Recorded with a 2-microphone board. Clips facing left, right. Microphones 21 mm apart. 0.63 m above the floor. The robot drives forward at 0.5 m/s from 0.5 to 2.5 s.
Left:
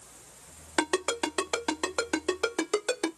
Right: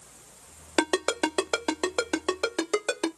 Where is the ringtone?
40° right (ahead or behind), 0.7 m; by 3.1 s 25° right (ahead or behind), 1.2 m.